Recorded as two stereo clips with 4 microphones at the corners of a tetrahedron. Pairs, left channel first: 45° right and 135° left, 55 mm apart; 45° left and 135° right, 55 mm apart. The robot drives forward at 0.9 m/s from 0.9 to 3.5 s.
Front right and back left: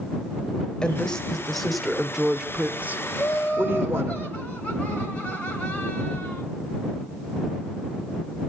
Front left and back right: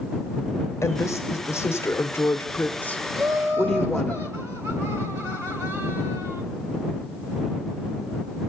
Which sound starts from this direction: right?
Laughter, at 3.1 s.